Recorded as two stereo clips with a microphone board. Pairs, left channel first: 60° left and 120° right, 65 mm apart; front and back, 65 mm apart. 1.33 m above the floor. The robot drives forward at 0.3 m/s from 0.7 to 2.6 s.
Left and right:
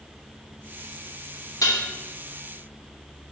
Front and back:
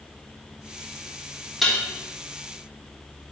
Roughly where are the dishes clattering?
Left.